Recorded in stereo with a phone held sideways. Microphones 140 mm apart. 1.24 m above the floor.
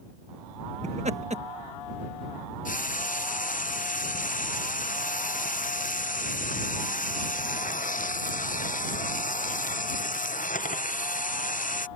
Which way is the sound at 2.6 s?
65° left (ahead or behind).